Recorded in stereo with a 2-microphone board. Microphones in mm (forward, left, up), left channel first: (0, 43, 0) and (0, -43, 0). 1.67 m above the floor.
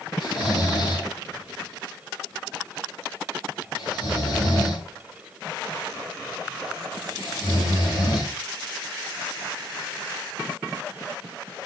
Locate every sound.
0.2 s snoring: 65° left (ahead or behind), 5 m